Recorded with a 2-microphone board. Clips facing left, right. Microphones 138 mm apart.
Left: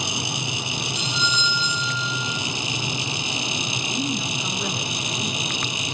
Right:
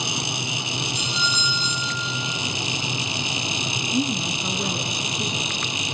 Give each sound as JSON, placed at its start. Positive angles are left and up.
{"t": 0.9, "sound": "a doorbell", "side_deg": -45, "distance_m": 7.0}
{"t": 3.9, "sound": "a woman speaking", "side_deg": -40, "distance_m": 2.5}